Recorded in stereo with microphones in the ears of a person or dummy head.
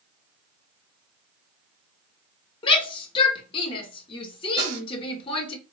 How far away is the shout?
About 0.9 m.